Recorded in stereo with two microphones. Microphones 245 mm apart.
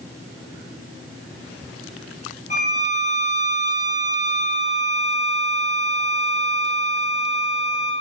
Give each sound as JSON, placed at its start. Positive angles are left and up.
{"t": 2.5, "sound": "a violin", "side_deg": 30, "distance_m": 0.5}